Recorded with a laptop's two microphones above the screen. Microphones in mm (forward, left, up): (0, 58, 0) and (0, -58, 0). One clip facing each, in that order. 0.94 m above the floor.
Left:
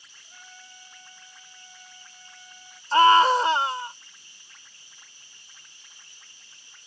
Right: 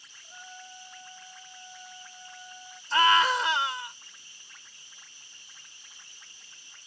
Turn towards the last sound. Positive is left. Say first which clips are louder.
# left 7 dB
turn(degrees=35)  # may be behind; listen again after turning